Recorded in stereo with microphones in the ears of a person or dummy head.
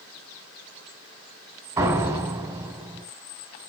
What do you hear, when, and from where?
1.8 s a door slam: 20° right (ahead or behind), 4.5 m